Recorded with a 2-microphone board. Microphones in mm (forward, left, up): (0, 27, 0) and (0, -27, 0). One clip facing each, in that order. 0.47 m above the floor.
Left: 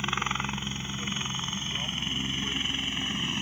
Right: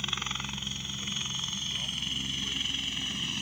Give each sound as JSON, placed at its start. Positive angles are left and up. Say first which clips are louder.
{"t": 0.0, "sound": "a helicopter", "louder": "left 6 dB", "side_deg": 30}